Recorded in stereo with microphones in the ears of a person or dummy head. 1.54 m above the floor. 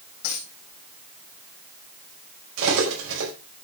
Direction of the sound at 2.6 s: 65° right (ahead or behind).